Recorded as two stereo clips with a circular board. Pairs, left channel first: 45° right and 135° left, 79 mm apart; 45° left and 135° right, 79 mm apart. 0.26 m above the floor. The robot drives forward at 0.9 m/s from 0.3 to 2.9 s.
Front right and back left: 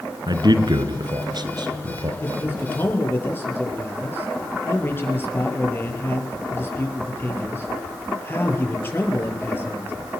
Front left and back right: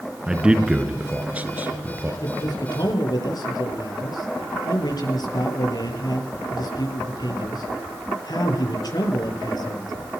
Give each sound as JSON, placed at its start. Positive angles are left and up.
{"t": 0.3, "sound": "a man speaking", "azimuth_deg": 145, "distance_m": 2.5}
{"t": 2.2, "sound": "a man speaking", "azimuth_deg": 15, "distance_m": 7.0}